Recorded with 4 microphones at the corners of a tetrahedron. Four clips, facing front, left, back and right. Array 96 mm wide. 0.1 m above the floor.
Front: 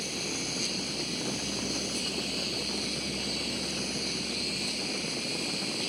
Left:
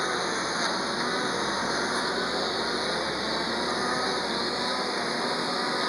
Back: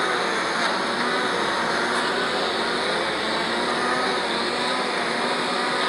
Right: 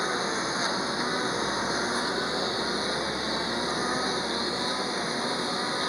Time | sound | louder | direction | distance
0.0 | a lawn mower | even, back 14 dB | straight behind | ?